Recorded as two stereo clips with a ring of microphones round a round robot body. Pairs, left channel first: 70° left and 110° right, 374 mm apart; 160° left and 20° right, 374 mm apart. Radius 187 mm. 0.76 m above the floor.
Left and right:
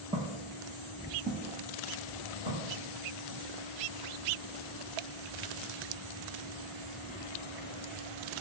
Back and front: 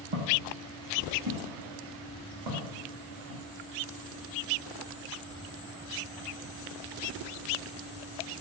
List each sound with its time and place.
0.1 s footsteps: 35° right, 1.4 m; by 3.4 s 50° right, 3 m